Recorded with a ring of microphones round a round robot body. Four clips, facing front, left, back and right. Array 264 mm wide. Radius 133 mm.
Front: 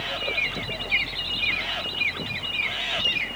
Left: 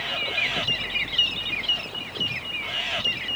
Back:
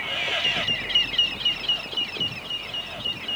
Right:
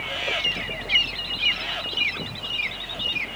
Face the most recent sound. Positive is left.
No sound to turn to.